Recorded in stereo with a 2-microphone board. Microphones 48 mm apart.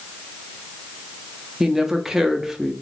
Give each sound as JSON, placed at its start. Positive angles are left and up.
{"t": 1.6, "sound": "a woman speaking", "side_deg": -10, "distance_m": 0.6}